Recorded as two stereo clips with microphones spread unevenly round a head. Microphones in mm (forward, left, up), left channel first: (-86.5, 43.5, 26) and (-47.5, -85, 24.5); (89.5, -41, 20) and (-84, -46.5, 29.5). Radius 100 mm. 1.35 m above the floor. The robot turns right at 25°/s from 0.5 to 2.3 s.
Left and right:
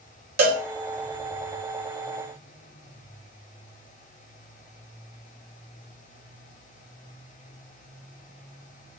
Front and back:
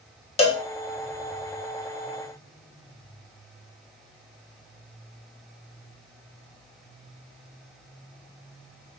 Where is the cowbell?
55° right, 0.7 m; by 0.6 s 50° right, 0.7 m.